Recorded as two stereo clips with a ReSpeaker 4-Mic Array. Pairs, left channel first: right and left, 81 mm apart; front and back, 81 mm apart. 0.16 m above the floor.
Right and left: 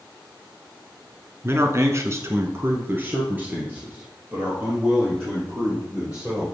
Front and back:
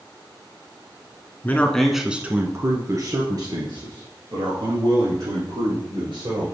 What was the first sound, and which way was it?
A man speaking, 55° left.